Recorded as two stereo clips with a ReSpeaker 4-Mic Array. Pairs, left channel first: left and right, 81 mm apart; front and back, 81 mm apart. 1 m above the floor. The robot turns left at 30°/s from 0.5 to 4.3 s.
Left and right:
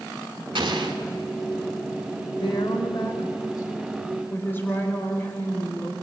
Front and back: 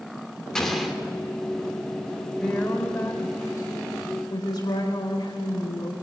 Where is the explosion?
80° right, 2.5 m; by 0.9 s 95° right, 2.5 m.